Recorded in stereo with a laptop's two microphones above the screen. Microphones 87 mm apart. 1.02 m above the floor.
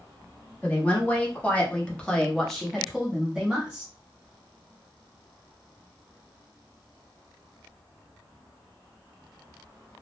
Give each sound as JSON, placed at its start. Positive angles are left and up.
{"t": 0.6, "sound": "a woman speaking", "side_deg": 15, "distance_m": 1.3}